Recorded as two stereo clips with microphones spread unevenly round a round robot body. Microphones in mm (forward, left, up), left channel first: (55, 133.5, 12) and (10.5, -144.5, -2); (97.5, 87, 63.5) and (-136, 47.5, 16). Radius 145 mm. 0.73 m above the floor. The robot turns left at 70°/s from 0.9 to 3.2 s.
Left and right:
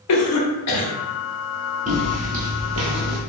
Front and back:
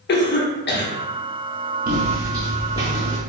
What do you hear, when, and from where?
0.1 s a cough: 60° left, 0.9 m
1.9 s footsteps: 130° right, 0.7 m; by 3.2 s 105° right, 1.3 m